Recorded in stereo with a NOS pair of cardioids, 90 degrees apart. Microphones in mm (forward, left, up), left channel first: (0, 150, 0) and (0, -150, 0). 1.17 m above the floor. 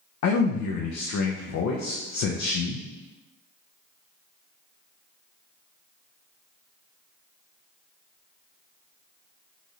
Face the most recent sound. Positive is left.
turn(degrees=55)